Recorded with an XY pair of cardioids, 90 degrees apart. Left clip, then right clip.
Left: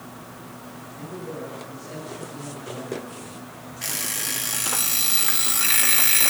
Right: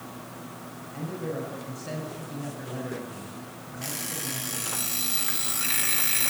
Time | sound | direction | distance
0.9 | a man speaking | 65° right | 8.5 m
3.8 | an alarm clock | 45° left | 1.5 m